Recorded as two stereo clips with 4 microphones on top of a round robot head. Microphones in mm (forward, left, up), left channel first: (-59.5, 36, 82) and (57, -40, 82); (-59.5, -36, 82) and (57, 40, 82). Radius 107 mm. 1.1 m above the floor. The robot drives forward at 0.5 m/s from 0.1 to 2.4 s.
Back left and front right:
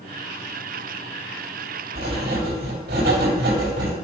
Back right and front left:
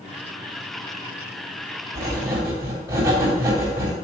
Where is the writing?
40° right, 3 m.